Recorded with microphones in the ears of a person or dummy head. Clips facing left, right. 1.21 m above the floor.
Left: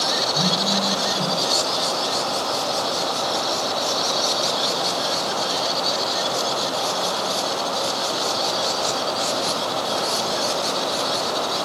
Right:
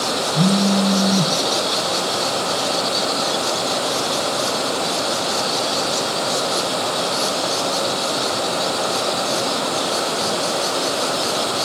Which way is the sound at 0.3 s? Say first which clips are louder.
Right 10 dB; 40° right (ahead or behind).